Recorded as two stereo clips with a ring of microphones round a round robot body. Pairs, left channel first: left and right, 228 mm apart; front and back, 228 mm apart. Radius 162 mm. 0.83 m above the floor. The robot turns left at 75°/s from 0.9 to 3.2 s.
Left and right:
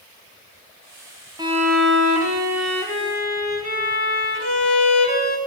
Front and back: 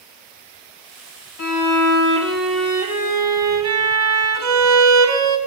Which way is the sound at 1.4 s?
15° right.